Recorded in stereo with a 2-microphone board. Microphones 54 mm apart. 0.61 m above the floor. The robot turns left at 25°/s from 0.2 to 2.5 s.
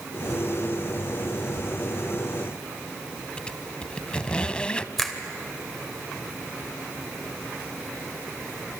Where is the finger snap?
Centre (ahead or behind), 2 m.